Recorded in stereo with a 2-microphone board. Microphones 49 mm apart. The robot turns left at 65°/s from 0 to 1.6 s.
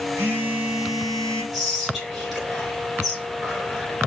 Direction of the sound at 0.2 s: 120° right.